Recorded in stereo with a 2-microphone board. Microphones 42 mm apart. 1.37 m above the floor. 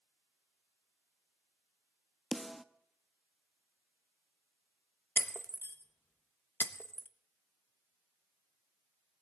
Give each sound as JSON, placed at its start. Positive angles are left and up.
{"t": 2.3, "sound": "a snare drum", "side_deg": 0, "distance_m": 0.8}
{"t": 5.2, "sound": "breaking glass", "side_deg": 55, "distance_m": 0.9}